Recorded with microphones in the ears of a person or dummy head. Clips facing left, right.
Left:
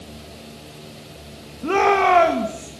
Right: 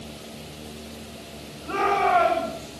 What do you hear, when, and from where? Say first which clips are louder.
1.6 s a shout: left 6 dB; 85° left, 3 m